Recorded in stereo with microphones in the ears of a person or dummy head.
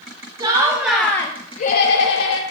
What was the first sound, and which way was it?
Laughter, 25° right (ahead or behind).